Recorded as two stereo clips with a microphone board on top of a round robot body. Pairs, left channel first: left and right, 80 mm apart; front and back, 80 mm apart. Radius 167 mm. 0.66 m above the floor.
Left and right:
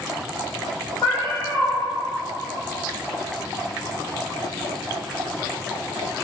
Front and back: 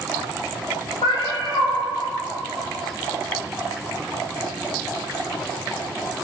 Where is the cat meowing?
35° left, 0.8 m.